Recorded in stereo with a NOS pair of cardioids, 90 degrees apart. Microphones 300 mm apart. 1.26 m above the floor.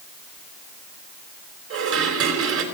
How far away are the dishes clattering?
About 4 m.